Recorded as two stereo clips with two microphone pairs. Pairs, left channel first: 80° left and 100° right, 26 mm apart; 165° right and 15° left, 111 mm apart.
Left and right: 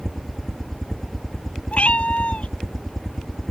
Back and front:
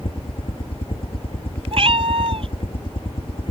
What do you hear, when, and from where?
0.0 s a helicopter: 160° left
1.7 s a cat meowing: 40° left